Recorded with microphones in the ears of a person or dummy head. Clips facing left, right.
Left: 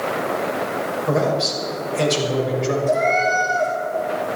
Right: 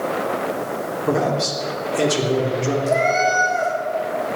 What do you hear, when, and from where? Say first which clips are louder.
1.1 s a man speaking: even; 65° right (ahead or behind), 3.5 m
2.9 s a cat meowing: right 1 dB; 75° right (ahead or behind), 3.5 m